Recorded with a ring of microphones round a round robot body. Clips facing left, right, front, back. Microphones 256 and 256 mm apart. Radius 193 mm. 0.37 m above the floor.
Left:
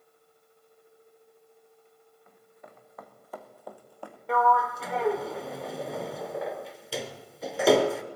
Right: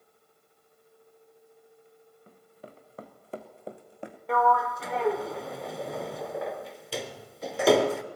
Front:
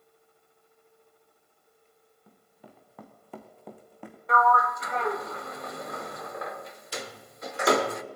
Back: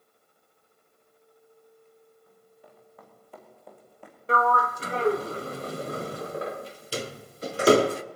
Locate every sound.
2.3 s running footsteps: 40° right, 3 m; by 4.2 s 20° right, 2 m
4.3 s a sliding door: straight behind, 0.8 m